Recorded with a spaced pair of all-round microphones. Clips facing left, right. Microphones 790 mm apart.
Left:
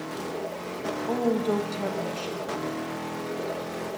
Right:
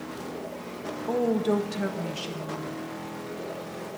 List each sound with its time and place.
1.1 s a woman speaking: 50° right (ahead or behind), 0.8 m